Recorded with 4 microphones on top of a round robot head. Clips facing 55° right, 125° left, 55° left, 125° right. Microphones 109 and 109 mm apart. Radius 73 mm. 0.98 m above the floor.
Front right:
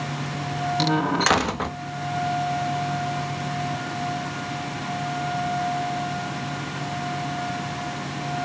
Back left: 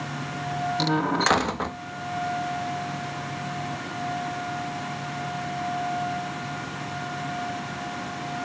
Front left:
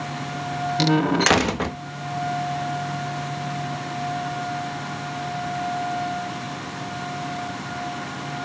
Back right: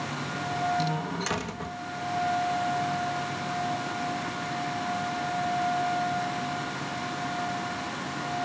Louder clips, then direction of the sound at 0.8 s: Front right 2 dB, front left 10 dB; 35° left.